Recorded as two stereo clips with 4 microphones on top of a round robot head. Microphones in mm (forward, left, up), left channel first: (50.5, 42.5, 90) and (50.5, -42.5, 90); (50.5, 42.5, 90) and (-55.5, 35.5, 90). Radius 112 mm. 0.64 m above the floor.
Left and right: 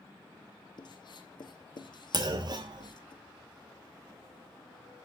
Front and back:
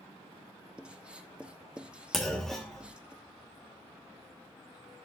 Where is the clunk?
80° right, 1.4 m.